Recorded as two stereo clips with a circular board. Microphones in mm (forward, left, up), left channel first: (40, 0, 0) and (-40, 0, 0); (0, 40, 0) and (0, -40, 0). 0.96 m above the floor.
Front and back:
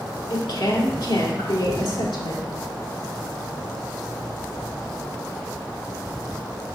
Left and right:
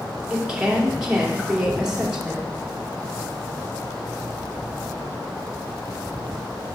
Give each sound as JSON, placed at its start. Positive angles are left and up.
{"t": 0.3, "sound": "a woman speaking", "azimuth_deg": -10, "distance_m": 2.5}